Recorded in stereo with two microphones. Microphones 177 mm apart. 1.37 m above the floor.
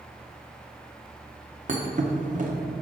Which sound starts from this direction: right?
A thud, at 1.7 s.